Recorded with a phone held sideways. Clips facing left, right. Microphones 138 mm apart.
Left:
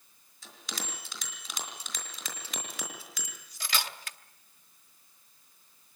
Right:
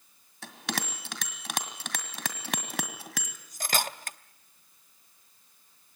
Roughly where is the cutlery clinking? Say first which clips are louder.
Right 5 dB; right.